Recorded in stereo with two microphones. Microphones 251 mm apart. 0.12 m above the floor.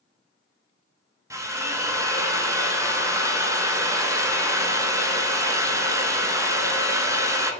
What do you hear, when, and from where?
1.3 s a drill: 10° right (ahead or behind), 0.6 m